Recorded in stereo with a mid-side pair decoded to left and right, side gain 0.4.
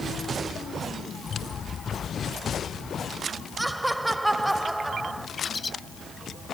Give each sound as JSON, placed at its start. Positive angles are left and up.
{"t": 1.2, "sound": "running footsteps", "azimuth_deg": 45}
{"t": 3.6, "sound": "laughter", "azimuth_deg": -15}
{"t": 5.4, "sound": "a bird", "azimuth_deg": 30}